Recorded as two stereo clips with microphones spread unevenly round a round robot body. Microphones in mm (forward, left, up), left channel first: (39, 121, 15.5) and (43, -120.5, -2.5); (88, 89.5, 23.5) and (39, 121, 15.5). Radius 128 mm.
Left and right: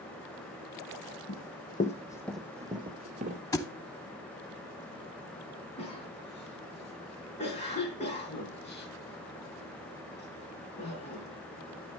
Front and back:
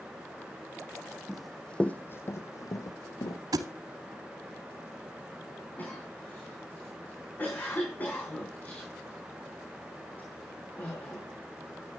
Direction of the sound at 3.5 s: 170° left.